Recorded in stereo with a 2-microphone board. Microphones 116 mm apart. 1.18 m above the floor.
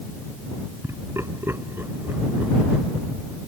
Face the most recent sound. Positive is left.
turn(degrees=-15)  # may be behind; listen again after turning